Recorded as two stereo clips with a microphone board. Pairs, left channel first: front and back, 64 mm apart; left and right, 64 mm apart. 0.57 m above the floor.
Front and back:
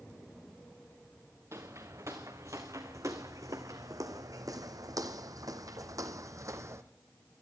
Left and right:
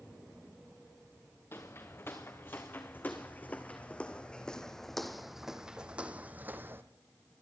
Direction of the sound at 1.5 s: 140° left.